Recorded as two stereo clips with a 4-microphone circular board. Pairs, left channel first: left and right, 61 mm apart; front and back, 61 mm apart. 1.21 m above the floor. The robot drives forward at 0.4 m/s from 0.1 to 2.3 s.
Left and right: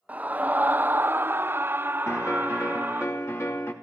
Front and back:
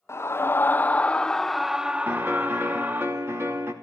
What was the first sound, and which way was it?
A scream, 30° right.